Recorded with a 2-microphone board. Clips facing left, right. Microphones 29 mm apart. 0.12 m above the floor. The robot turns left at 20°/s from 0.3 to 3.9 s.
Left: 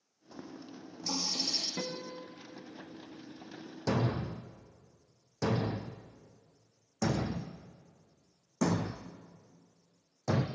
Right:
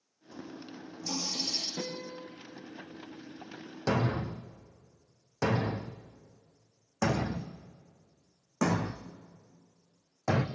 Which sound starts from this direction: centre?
A running tap, at 0.3 s.